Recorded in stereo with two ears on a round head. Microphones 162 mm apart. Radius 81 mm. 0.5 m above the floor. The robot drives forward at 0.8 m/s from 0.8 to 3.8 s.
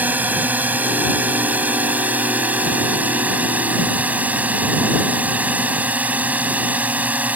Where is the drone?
10° right (ahead or behind).